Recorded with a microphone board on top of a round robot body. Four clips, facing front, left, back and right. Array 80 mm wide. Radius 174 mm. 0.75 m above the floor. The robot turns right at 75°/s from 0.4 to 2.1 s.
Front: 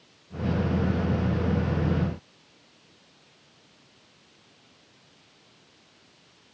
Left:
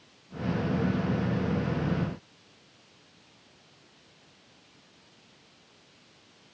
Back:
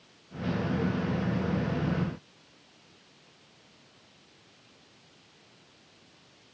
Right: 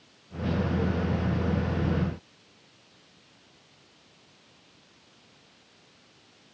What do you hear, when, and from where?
Only background noise.